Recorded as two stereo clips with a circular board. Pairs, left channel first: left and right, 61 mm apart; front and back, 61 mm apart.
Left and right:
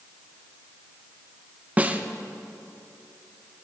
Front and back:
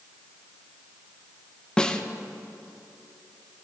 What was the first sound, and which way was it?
A snare drum, 60° right.